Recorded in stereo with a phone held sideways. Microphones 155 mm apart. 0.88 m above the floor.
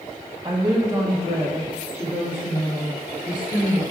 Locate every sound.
0.4 s a woman speaking: 25° right (ahead or behind), 1.3 m; by 3.8 s 40° left (ahead or behind), 4.5 m